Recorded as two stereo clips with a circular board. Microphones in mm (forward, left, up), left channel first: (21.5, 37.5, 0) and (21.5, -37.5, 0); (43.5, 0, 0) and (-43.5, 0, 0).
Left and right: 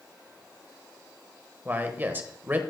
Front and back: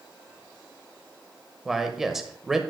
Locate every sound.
1.6 s a man speaking: 100° right, 0.9 m